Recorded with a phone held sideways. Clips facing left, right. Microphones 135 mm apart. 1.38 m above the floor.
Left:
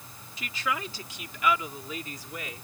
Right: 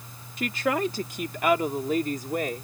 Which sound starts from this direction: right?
A woman speaking, at 0.4 s.